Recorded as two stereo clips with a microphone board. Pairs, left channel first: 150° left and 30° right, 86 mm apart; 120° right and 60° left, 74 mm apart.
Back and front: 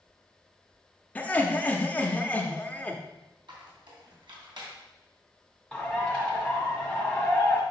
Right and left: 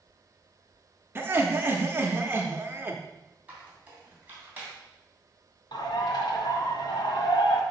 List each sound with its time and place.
1.1 s laughter: 90° left, 0.9 m
3.5 s a squeak: 5° right, 2.5 m
5.7 s a bird: 130° right, 1.8 m